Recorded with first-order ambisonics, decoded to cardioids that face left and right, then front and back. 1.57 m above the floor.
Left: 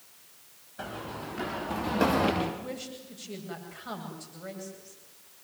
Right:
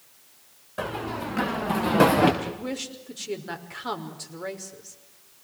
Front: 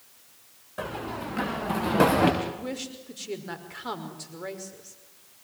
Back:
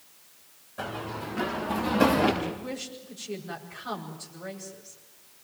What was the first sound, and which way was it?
Running footsteps, 70° right.